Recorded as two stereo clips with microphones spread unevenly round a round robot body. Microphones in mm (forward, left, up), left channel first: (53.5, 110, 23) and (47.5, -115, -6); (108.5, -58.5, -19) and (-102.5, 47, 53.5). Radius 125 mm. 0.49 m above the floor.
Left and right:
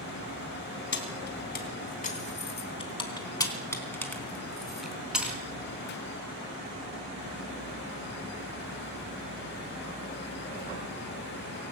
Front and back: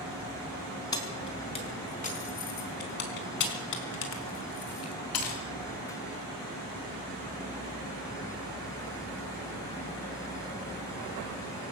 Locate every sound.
0.9 s keys jangling: 45° left, 3.5 m; by 5.4 s 10° right, 4 m